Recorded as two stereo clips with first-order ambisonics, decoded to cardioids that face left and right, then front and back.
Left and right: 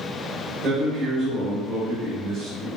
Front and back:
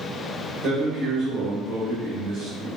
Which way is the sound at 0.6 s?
155° right.